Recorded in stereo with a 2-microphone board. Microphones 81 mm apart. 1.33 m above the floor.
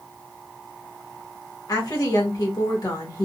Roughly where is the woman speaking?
Left.